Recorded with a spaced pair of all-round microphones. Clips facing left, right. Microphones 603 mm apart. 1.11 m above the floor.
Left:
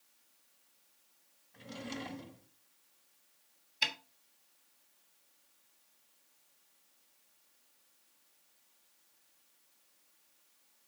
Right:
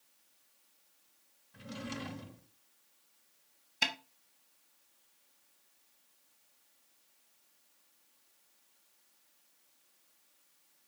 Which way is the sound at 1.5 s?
35° right (ahead or behind).